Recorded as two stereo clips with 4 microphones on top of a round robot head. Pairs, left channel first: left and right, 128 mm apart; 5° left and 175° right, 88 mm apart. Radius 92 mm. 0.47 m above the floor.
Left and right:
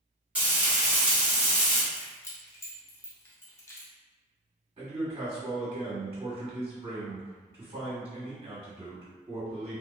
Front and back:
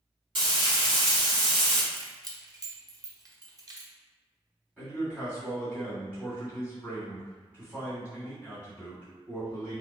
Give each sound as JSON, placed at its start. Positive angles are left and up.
{"t": 0.3, "sound": "frying", "azimuth_deg": -170, "distance_m": 1.5}
{"t": 1.9, "sound": "keys jangling", "azimuth_deg": 155, "distance_m": 0.8}
{"t": 4.8, "sound": "a man speaking", "azimuth_deg": -110, "distance_m": 1.8}